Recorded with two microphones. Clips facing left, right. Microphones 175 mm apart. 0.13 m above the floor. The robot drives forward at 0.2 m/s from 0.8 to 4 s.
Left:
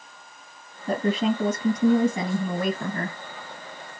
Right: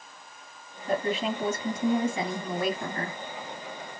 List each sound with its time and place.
0.9 s a woman speaking: 40° left (ahead or behind), 3 m; by 3.2 s 45° left (ahead or behind), 3 m